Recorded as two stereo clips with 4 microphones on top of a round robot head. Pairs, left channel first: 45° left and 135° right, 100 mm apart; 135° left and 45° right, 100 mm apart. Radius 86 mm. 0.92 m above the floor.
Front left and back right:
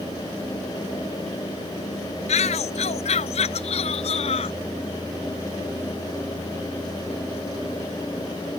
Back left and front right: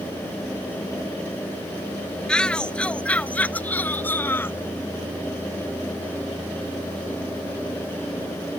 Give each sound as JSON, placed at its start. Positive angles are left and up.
{"t": 2.3, "sound": "a shout", "azimuth_deg": 55}